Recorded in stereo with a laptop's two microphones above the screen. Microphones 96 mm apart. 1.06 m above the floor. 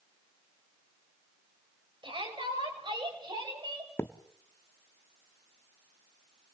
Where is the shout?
55° right (ahead or behind), 5.5 m; by 3.9 s 50° right (ahead or behind), 7 m.